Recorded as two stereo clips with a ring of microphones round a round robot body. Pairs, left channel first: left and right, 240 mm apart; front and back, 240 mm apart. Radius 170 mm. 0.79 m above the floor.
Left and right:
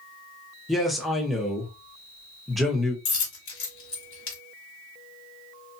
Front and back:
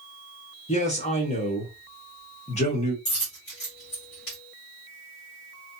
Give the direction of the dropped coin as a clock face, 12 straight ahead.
10 o'clock.